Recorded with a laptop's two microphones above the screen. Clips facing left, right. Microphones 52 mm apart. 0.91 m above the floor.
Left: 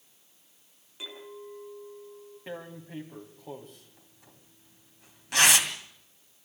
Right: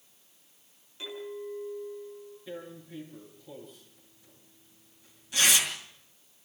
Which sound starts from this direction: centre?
A clink, at 1.0 s.